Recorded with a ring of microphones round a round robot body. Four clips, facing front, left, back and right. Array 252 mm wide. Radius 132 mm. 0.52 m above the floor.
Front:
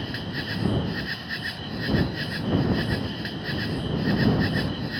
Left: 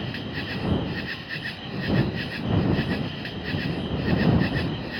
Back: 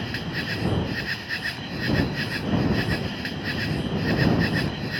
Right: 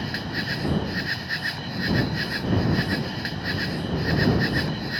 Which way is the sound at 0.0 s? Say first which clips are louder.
Right 2 dB, back 1 dB; 95° right.